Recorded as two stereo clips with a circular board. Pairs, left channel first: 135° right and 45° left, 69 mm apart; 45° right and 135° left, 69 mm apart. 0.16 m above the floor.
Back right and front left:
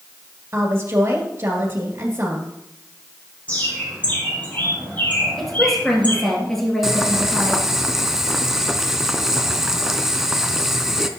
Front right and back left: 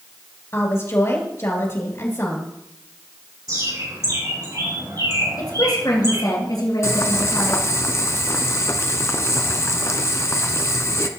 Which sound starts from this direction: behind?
A bird, at 3.5 s.